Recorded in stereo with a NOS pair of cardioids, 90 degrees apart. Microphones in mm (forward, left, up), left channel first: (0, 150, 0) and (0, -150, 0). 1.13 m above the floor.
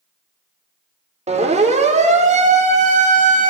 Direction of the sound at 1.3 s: 20° right.